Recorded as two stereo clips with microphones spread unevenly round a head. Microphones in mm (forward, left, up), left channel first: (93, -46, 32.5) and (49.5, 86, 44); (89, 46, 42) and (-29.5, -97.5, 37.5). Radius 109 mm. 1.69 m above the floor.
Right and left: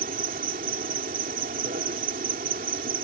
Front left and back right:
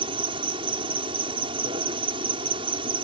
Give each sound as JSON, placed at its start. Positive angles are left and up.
{"t": 0.0, "sound": "an insect", "azimuth_deg": 160}